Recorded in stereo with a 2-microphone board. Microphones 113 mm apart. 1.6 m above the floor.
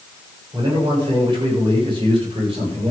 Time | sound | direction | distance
0.5 | a man speaking | 40° right (ahead or behind) | 8 m